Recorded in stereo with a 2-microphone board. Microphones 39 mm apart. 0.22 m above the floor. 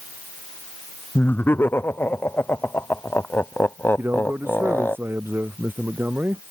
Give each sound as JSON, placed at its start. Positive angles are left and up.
{"t": 1.1, "sound": "laughter", "side_deg": 60}
{"t": 4.0, "sound": "a man speaking", "side_deg": -65}